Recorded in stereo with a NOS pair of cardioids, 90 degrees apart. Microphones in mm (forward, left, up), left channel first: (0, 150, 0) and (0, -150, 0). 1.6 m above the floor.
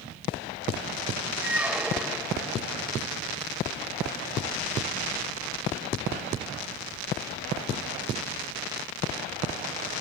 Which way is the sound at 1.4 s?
5° right.